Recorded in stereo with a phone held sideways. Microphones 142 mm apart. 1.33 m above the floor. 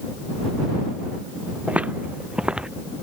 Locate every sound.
1.7 s footsteps: 10° right (ahead or behind); by 2.7 s 5° right (ahead or behind)